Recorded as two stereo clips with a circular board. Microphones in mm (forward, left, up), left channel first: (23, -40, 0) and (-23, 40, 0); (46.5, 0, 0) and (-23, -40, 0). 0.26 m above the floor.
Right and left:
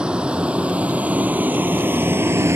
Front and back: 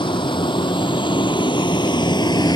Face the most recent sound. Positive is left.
turn(degrees=60)